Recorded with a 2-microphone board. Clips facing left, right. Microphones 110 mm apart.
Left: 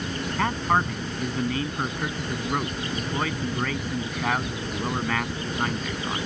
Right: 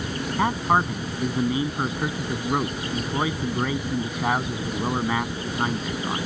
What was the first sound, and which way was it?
A man speaking, 15° right (ahead or behind).